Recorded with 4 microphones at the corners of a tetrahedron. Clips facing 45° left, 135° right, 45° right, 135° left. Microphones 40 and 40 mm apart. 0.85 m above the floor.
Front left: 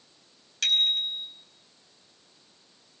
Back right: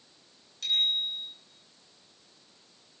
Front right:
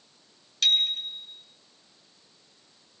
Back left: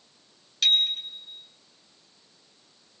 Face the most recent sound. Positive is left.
turn(degrees=50)